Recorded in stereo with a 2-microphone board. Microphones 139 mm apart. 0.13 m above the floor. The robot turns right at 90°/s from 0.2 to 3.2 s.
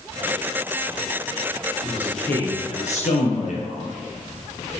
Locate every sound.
1.8 s a man speaking: 25° right, 2.5 m; by 3.9 s 95° left, 2.5 m